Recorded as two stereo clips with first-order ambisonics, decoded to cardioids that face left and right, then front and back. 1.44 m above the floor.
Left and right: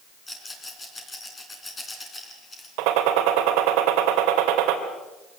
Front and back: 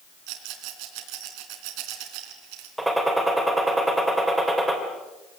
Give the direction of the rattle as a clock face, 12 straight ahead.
6 o'clock.